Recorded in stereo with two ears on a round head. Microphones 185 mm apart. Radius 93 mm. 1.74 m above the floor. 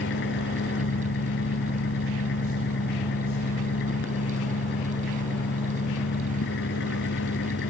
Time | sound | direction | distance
0.0 | an engine running | 60° left (ahead or behind) | ?